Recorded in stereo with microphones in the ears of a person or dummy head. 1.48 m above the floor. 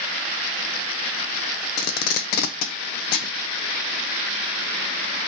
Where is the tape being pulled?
60° left (ahead or behind), 0.5 m.